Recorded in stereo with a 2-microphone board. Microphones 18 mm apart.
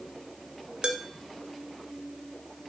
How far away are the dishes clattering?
About 1.0 m.